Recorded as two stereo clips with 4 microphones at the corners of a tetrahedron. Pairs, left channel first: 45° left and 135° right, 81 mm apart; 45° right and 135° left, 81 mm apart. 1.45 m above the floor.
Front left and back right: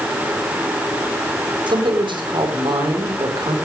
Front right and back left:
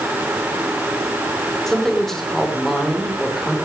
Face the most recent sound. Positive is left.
turn(degrees=-130)